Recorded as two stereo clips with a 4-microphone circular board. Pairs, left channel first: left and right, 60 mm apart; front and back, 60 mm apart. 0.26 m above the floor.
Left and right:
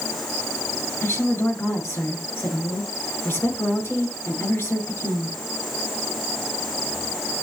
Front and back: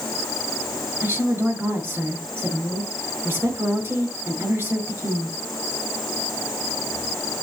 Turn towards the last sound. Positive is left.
turn(degrees=130)